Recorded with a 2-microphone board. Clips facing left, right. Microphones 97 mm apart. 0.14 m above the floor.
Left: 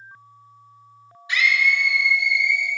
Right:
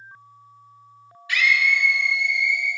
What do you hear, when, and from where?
1.3 s a scream: 20° left (ahead or behind), 1.4 m; by 2.7 s 5° left (ahead or behind), 1.6 m